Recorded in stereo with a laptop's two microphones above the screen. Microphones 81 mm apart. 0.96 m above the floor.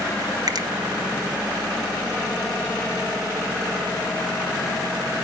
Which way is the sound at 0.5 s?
55° right (ahead or behind).